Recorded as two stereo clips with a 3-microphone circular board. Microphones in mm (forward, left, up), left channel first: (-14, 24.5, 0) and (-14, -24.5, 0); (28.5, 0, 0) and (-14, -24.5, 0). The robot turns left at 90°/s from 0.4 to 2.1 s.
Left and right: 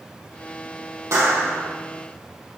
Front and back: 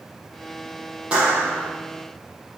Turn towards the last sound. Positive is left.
turn(degrees=-170)